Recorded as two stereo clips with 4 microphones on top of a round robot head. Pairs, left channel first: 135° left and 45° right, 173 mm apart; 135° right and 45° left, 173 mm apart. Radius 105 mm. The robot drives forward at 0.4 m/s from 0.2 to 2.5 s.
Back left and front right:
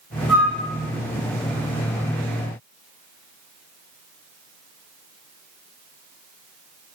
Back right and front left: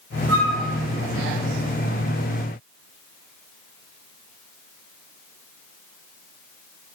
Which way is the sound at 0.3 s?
50° left.